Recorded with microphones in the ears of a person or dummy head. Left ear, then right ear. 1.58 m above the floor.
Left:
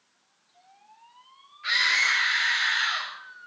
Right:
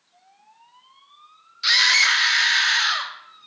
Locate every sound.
1.6 s a scream: 80° right, 3 m